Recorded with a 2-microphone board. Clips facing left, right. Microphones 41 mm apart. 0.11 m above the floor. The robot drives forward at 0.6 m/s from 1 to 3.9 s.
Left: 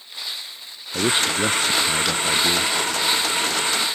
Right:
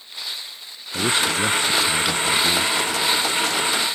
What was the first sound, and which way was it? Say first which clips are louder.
A man speaking: even; 20° left (ahead or behind).